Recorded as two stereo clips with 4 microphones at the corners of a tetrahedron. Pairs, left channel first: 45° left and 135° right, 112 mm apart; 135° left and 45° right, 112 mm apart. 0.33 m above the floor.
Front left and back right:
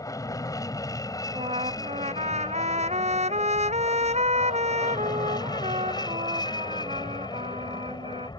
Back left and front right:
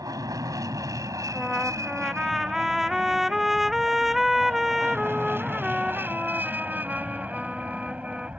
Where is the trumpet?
135° right.